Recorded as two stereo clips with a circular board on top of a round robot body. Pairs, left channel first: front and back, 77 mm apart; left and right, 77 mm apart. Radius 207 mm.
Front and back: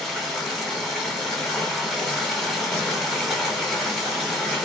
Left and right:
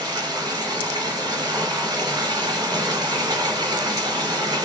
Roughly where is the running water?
Right.